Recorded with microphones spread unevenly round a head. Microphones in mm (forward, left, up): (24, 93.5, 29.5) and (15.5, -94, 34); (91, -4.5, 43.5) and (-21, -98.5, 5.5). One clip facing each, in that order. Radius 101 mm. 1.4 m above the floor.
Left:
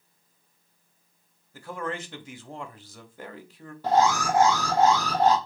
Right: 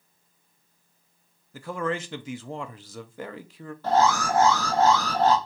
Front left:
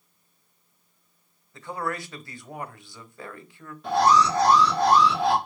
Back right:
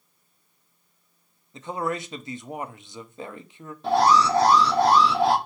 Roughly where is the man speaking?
Right.